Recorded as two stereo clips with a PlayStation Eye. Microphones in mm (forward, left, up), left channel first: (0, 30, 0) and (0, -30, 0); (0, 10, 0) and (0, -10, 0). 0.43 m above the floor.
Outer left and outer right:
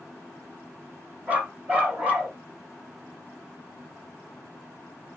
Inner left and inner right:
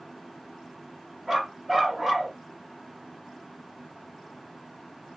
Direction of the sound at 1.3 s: 25° right (ahead or behind).